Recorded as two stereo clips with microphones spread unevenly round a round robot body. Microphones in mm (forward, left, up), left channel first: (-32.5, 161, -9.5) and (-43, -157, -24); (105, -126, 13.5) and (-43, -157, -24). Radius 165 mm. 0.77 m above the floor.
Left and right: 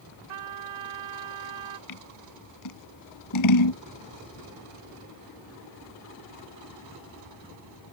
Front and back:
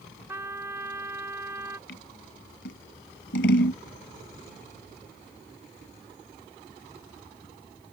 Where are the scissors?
50° left.